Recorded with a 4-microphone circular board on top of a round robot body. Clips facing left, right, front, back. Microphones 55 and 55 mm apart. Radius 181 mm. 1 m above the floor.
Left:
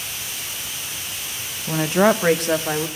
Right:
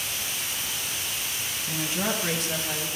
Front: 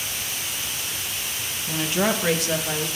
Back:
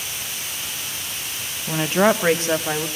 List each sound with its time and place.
1.7 s a woman speaking: 120° left, 0.7 m; by 2.9 s 125° left, 1.5 m